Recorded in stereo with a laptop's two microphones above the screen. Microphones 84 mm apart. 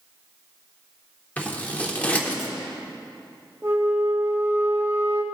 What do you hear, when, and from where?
1.4 s scissors: 20° left (ahead or behind), 0.8 m
3.6 s a flute: 30° right (ahead or behind), 1.1 m